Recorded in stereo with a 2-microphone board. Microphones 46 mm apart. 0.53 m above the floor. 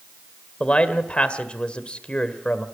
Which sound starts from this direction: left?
A man speaking, at 0.6 s.